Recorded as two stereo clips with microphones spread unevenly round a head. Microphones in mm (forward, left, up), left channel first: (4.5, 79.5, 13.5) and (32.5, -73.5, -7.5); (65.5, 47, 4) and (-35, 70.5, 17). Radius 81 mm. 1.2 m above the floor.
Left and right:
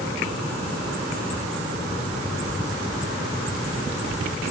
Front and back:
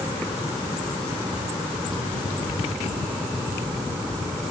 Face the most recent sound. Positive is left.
No sound to turn to.